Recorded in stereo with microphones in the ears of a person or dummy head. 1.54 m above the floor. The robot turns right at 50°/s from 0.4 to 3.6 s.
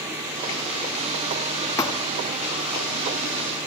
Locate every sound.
1.8 s a thud: 15° left (ahead or behind); by 2.1 s 25° left (ahead or behind)